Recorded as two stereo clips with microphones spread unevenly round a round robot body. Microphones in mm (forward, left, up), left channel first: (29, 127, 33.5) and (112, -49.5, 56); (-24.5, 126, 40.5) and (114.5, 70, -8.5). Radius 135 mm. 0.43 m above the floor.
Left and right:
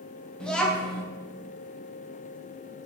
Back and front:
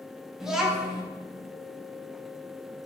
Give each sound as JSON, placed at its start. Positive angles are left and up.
{"t": 0.4, "sound": "a child speaking", "azimuth_deg": 40, "distance_m": 0.7}